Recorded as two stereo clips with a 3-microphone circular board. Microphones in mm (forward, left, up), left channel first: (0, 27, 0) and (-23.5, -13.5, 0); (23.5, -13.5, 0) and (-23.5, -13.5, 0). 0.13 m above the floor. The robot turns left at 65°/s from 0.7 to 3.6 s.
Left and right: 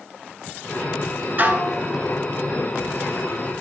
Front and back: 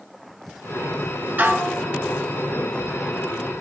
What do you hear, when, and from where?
1.4 s dishes clattering: 140° right, 1.2 m; by 1.8 s 170° right, 1.2 m